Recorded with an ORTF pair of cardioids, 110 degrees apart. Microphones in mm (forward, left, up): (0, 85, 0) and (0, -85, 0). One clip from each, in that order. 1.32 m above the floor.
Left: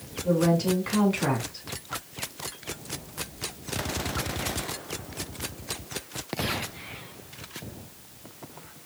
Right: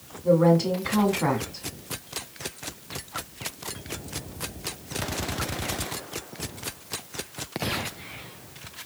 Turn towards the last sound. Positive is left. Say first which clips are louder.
# right 4 dB
turn(degrees=-20)